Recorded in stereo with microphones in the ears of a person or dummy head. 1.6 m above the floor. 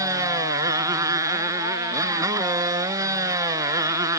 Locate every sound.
0.0 s a motorcycle: 20° right (ahead or behind)